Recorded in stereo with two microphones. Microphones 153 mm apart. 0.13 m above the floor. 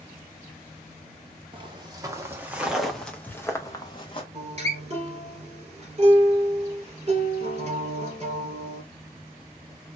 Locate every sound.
1.5 s footsteps: 30° right (ahead or behind), 1.5 m; by 4.2 s 35° left (ahead or behind), 1.4 m
4.3 s a guitar: 40° right (ahead or behind), 2.5 m